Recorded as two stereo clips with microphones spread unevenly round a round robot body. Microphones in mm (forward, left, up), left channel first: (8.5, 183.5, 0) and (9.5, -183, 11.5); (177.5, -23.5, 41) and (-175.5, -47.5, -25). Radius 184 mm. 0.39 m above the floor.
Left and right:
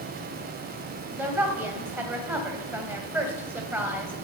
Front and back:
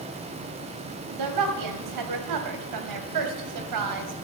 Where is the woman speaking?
175° right, 2 m.